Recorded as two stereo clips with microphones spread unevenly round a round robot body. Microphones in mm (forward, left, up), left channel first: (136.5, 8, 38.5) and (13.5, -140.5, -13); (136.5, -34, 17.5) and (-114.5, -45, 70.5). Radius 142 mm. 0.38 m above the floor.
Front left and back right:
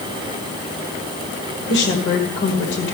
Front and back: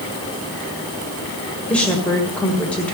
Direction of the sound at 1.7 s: 75° left.